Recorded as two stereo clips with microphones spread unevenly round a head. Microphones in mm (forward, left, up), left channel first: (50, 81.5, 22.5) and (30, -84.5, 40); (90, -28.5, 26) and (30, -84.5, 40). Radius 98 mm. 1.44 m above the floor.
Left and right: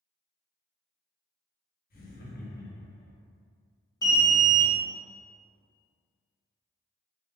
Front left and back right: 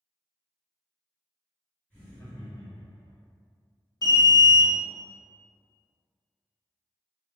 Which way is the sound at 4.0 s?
15° left.